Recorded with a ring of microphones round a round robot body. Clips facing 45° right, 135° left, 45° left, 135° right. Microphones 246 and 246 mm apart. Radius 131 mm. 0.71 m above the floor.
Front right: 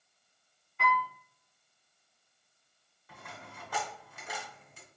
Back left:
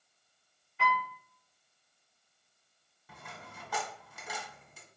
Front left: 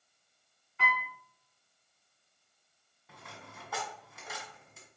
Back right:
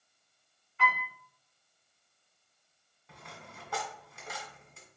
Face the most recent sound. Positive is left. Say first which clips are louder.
# front right 1 dB, back right 1 dB
turn(degrees=130)